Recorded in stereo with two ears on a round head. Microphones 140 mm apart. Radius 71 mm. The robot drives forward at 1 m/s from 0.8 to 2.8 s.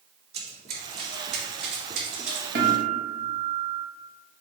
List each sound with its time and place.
0.3 s running footsteps: 45° right (ahead or behind), 3 m; by 2.5 s 55° right (ahead or behind), 3.5 m
2.5 s a guitar: 80° right, 2 m; by 3.9 s 85° right, 2 m